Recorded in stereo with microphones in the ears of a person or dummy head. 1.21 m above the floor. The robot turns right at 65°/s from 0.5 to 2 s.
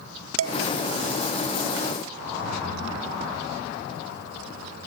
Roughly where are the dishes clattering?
Right.